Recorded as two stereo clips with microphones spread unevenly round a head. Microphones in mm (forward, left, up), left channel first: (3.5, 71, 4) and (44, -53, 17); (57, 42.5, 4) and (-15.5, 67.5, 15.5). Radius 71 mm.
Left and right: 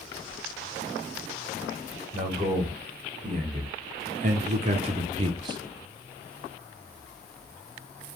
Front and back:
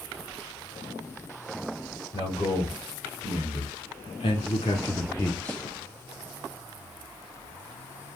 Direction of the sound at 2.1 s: 40° right.